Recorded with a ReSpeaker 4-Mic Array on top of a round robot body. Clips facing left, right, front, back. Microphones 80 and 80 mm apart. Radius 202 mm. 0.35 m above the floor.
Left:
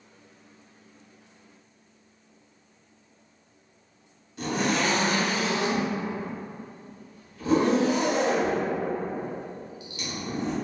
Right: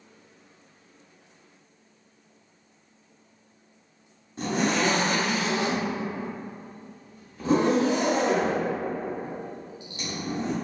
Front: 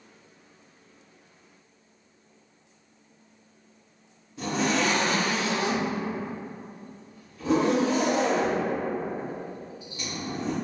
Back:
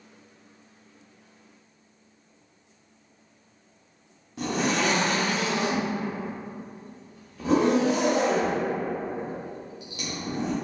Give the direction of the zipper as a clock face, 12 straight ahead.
5 o'clock.